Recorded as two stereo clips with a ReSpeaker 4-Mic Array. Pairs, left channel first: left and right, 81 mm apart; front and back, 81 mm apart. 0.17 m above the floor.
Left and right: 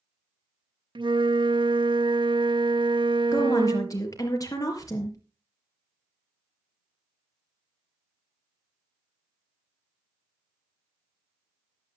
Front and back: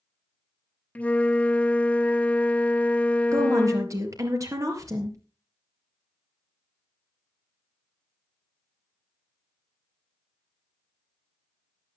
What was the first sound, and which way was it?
A flute, 75° right.